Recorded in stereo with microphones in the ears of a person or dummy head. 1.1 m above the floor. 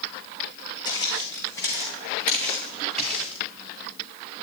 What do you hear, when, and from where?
0.8 s footsteps: 25° left (ahead or behind), 3 m; by 3.4 s centre (ahead or behind), 4 m